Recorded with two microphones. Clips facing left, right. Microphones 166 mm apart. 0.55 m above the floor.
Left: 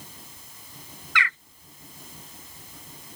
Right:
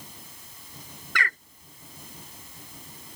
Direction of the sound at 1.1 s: 45° right (ahead or behind).